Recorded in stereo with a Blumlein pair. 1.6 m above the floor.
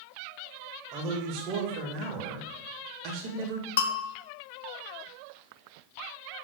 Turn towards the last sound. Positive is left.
turn(degrees=55)